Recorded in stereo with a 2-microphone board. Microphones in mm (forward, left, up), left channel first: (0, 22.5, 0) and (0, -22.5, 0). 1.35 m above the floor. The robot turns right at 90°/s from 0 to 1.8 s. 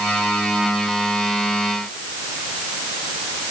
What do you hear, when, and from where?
Only background noise.